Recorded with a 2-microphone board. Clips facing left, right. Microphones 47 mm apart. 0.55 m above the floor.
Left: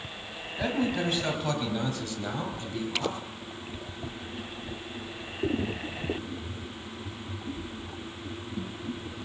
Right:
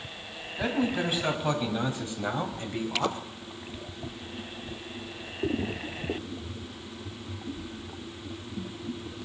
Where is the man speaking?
5° right (ahead or behind), 4 m; by 3.2 s 45° right (ahead or behind), 3 m.